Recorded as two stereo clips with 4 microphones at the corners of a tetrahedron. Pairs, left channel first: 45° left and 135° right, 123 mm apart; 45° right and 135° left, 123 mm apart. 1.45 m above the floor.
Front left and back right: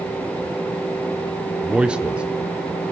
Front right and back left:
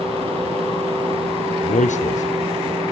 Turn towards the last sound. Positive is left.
turn(degrees=-55)